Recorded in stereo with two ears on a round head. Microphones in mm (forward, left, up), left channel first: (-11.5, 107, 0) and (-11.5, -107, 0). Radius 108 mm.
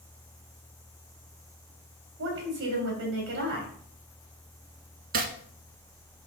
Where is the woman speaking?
50° right (ahead or behind), 3 m.